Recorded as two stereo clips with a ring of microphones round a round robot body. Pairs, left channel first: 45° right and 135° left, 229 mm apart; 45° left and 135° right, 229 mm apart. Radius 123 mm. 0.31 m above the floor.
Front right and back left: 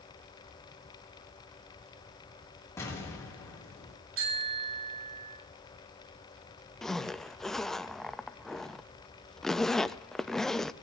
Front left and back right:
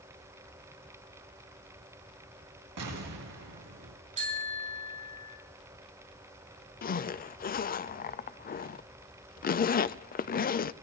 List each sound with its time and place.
2.8 s an explosion: 125° right, 4.5 m
4.2 s a bicycle bell: 165° left, 4 m
6.8 s a zipper: 45° left, 0.6 m